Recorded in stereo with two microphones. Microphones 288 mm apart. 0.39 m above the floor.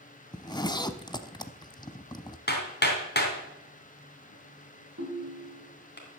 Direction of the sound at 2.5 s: 35° left (ahead or behind).